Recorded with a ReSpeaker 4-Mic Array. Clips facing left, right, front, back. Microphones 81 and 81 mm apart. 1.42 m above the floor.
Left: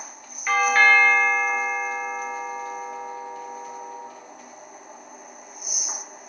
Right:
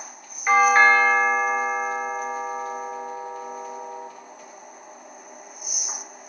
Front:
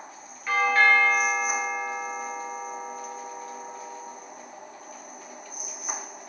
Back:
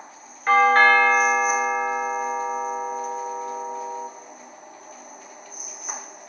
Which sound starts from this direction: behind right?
A doorbell, at 0.5 s.